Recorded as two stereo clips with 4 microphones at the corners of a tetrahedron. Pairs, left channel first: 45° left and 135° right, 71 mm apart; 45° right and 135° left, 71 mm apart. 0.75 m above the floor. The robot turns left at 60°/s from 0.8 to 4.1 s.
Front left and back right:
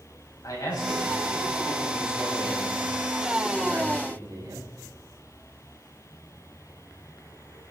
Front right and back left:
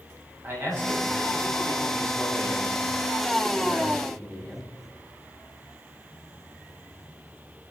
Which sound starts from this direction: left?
A man speaking, at 0.4 s.